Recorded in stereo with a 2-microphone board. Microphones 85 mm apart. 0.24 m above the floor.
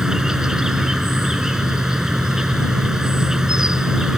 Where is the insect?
10° right (ahead or behind).